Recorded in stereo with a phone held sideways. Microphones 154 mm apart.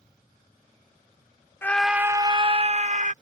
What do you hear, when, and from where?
1.6 s a scream: 15° left (ahead or behind); by 3.1 s 50° right (ahead or behind)